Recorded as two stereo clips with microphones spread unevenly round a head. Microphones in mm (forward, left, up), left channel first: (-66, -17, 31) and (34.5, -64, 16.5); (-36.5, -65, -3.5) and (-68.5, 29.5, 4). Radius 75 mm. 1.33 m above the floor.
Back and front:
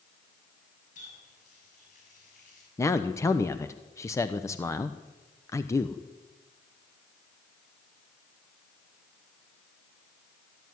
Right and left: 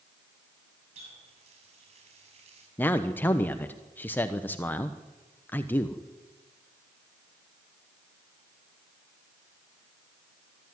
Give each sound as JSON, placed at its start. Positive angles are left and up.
{"t": 0.9, "sound": "a running tap", "azimuth_deg": 115, "distance_m": 6.5}
{"t": 2.8, "sound": "a man speaking", "azimuth_deg": -140, "distance_m": 1.0}